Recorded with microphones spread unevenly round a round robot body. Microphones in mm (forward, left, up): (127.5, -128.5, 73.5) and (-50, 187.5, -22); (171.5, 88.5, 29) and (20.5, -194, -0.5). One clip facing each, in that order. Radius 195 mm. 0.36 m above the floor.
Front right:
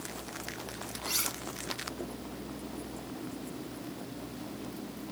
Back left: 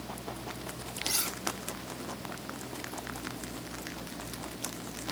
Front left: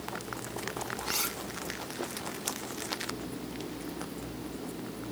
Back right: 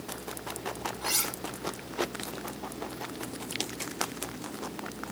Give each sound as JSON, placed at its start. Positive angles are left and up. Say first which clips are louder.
{"t": 1.0, "sound": "cutlery clinking", "louder": "back left 3 dB, back right 1 dB", "azimuth_deg": -175, "distance_m": 8.0}